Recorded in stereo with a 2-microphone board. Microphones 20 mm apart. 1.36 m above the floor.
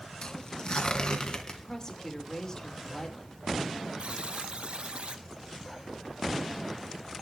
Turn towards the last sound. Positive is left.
turn(degrees=-70)  # may be behind; listen again after turning